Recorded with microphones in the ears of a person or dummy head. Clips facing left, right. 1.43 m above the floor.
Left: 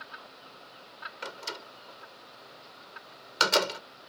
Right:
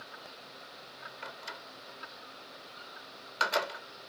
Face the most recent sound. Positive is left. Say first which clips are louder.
# left 7 dB
turn(degrees=60)  # may be behind; listen again after turning